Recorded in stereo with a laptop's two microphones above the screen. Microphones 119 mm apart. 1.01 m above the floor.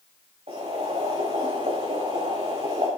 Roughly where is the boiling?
Right.